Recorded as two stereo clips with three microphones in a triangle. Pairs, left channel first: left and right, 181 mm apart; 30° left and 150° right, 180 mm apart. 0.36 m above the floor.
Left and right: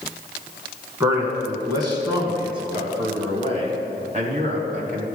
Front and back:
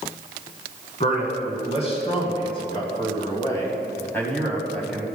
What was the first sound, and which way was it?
A man speaking, 20° right.